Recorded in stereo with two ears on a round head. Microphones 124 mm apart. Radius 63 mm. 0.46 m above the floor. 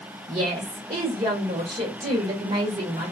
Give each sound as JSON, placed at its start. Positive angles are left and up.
{"t": 0.3, "sound": "a woman speaking", "side_deg": -40, "distance_m": 1.7}